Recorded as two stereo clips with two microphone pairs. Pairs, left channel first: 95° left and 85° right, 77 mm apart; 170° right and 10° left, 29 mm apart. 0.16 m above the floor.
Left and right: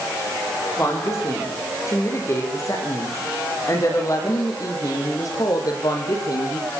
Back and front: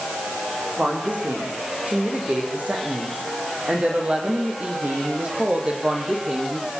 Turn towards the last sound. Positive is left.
turn(degrees=65)